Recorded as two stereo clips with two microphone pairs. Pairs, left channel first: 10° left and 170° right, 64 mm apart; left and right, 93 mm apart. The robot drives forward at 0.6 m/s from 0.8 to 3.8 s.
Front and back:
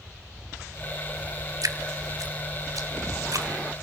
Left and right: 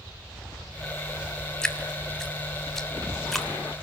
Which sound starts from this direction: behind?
Dripping, at 1.6 s.